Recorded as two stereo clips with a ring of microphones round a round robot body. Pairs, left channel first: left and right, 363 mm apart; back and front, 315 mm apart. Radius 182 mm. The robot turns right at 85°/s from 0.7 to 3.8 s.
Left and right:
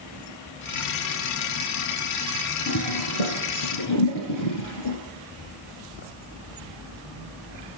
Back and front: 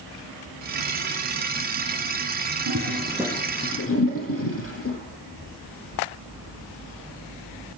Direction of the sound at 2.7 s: 35° left.